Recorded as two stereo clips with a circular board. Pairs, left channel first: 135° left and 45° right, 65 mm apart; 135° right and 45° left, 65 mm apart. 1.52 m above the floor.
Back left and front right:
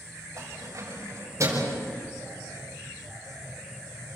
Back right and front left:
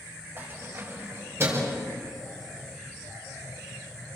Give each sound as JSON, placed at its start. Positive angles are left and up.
{"t": 0.4, "sound": "keys jangling", "azimuth_deg": -10, "distance_m": 7.0}